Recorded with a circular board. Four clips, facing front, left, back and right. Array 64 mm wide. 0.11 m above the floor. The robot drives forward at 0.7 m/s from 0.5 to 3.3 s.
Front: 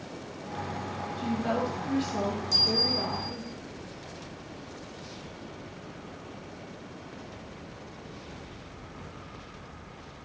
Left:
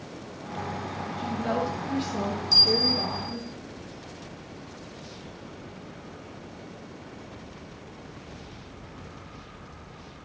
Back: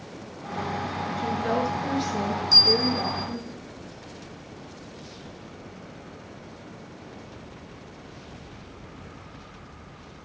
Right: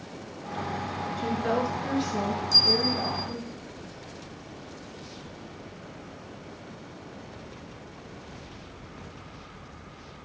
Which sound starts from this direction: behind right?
A woman speaking, at 1.2 s.